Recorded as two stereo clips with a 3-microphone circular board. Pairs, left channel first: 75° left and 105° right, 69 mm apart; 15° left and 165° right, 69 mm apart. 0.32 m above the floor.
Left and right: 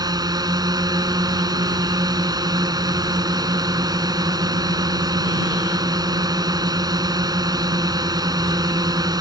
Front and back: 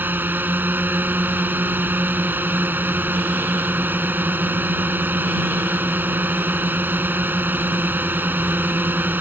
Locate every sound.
0.0 s a drone: 105° right